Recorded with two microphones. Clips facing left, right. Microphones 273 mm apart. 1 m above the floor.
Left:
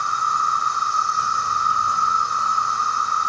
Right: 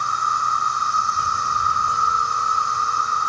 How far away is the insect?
About 3 m.